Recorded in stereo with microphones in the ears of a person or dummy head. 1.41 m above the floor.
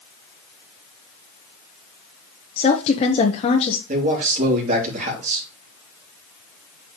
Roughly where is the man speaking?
Right.